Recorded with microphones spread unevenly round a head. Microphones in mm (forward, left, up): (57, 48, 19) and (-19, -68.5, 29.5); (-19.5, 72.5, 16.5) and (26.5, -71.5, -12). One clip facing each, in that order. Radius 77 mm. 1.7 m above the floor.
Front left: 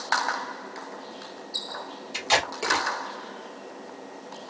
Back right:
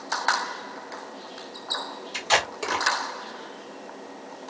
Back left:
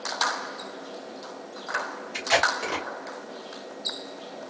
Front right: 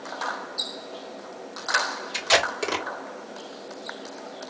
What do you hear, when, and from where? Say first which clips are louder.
2.1 s tape being pulled: even, front right 1 dB; 25° right, 1.8 m